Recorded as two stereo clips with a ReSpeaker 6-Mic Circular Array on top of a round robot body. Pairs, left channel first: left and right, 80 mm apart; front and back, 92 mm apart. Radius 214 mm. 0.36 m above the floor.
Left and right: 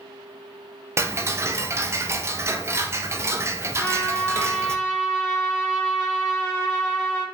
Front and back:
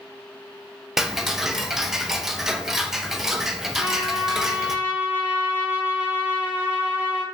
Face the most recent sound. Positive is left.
turn(degrees=120)